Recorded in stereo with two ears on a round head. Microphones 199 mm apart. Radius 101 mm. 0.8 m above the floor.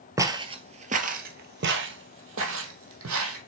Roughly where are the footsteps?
Centre.